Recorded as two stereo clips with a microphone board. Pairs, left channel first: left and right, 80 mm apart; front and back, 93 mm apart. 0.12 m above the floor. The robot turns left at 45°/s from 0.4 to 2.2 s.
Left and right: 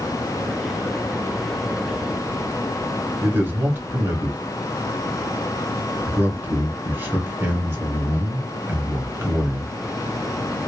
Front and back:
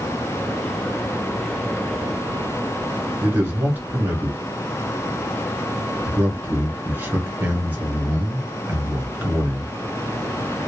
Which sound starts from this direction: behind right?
A man speaking, at 3.2 s.